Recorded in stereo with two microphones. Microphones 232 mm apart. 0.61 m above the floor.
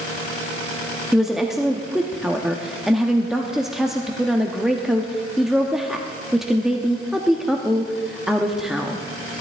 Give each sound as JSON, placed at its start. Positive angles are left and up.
{"t": 1.1, "sound": "a woman speaking", "side_deg": 0, "distance_m": 0.6}